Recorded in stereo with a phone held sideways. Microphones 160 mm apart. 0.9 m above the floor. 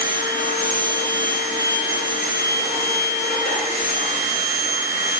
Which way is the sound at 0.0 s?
65° left (ahead or behind).